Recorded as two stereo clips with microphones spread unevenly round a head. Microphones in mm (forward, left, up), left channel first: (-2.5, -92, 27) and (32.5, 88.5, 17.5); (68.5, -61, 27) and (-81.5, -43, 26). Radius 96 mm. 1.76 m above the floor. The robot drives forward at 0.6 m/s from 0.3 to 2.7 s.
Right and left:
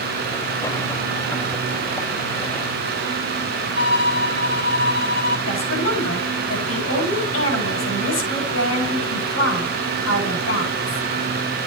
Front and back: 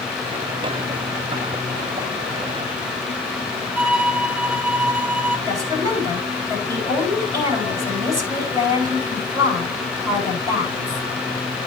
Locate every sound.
3.8 s a violin: 110° right, 6.5 m
5.5 s a woman speaking: 115° right, 8 m